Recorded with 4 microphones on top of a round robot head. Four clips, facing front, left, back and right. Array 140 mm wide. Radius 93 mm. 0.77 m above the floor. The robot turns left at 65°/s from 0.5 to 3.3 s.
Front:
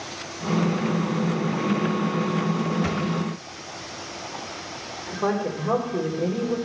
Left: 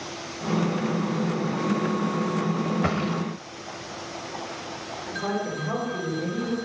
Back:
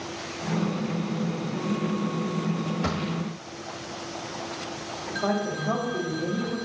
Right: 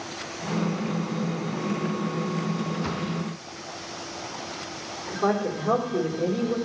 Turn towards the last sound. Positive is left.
turn(degrees=-35)